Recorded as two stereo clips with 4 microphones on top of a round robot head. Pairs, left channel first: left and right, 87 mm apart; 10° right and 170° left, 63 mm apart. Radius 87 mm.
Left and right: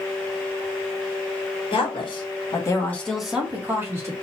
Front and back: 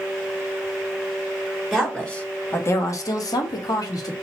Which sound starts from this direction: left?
A woman speaking, at 1.7 s.